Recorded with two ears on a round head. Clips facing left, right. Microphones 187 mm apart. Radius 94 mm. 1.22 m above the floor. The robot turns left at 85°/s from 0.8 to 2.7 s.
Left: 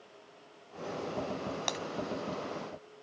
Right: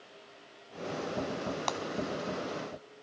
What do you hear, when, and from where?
1.7 s breaking glass: 20° left (ahead or behind); by 1.8 s 30° left (ahead or behind)